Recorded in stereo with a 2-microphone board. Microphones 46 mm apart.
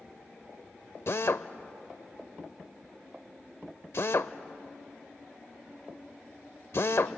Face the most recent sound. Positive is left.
turn(degrees=60)  # may be behind; listen again after turning